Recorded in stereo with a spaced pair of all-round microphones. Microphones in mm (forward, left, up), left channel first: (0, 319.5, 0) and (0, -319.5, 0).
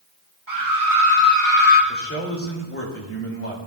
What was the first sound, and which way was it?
A scream, 45° right (ahead or behind).